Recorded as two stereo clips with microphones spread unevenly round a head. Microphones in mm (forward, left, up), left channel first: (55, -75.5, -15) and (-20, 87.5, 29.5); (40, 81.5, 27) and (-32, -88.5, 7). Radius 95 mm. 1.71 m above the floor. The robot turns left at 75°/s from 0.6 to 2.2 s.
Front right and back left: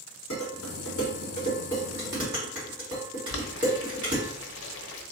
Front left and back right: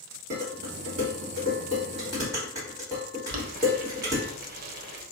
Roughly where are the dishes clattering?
Right.